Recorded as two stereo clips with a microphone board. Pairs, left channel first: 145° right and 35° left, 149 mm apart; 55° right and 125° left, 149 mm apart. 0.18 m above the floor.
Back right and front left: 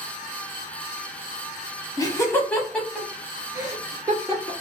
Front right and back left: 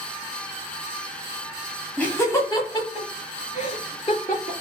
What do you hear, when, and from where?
2.0 s laughter: 125° right, 1.0 m; by 4.5 s 30° right, 2 m